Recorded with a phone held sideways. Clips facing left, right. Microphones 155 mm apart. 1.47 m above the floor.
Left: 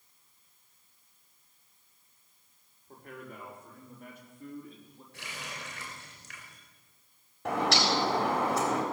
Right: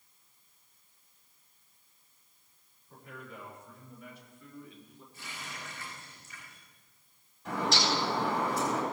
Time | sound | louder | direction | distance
2.9 | a man speaking | left 2 dB | 60° left (ahead or behind) | 4 m
5.1 | a running tap | left 2 dB | 85° left | 4.5 m
7.5 | a bird | left 3 dB | 75° left (ahead or behind) | 4 m